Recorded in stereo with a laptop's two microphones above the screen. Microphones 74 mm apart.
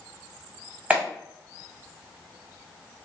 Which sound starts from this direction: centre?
A clap, at 0.9 s.